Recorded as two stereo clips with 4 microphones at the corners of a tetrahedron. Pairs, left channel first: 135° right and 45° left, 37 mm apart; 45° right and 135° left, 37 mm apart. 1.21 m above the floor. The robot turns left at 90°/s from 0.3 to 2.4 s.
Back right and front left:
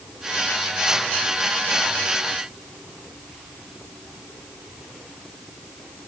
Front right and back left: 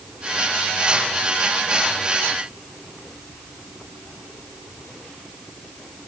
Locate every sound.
Only background noise.